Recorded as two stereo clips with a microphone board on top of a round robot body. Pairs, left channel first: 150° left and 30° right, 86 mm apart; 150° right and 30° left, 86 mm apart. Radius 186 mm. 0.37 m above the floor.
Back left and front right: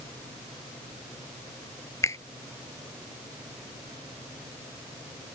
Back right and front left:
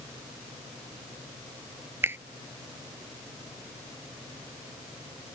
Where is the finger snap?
95° left.